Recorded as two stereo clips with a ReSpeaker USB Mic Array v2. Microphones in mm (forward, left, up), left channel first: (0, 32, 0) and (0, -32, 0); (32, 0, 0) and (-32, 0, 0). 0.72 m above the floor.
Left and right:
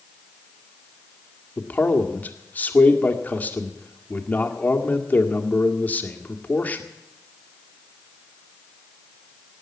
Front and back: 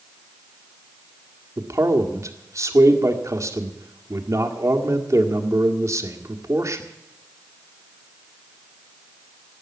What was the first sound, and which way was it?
A man speaking, 150° left.